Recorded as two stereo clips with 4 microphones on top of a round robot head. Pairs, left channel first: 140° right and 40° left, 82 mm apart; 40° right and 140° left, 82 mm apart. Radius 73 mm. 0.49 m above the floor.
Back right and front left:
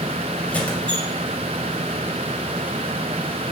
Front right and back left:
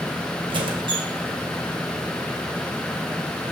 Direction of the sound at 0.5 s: 145° left.